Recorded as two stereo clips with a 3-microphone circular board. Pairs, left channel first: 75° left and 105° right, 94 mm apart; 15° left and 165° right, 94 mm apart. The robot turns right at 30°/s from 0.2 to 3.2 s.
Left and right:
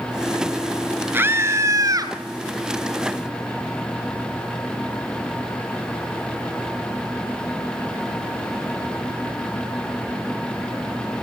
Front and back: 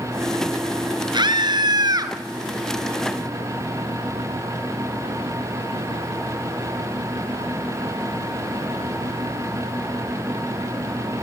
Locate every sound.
1.1 s a scream: 165° right, 1.6 m; by 2.1 s 135° right, 1.6 m